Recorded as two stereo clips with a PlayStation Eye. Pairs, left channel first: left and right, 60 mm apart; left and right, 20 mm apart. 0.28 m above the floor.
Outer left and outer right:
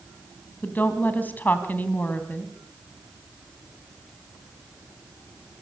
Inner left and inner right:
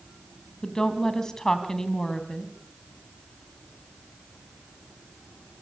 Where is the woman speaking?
30° left (ahead or behind), 2 m.